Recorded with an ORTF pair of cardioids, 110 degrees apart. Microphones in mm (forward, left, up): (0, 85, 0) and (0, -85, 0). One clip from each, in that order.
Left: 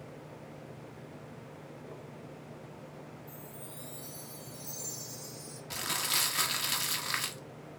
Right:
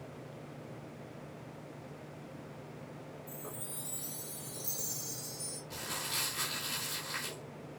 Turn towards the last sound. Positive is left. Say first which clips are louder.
# left 6 dB
turn(degrees=60)